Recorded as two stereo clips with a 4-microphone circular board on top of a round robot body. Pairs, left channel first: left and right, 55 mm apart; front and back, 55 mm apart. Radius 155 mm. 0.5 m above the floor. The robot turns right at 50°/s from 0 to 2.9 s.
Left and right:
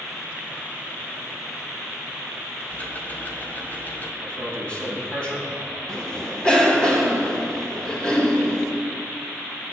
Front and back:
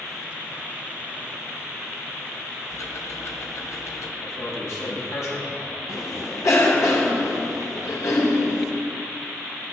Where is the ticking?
20° left, 1.4 m; by 4.1 s 30° left, 1.4 m.